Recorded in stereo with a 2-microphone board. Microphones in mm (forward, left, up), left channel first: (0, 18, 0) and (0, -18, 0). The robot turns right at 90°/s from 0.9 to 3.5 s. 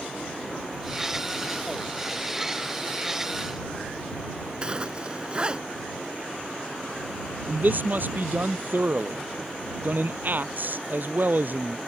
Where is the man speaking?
55° right (ahead or behind).